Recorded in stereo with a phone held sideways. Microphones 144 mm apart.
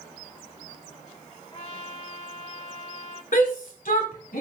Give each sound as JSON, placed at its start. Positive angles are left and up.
{"t": 1.5, "sound": "a trumpet", "side_deg": 40, "distance_m": 1.9}
{"t": 3.3, "sound": "a shout", "side_deg": 75, "distance_m": 3.0}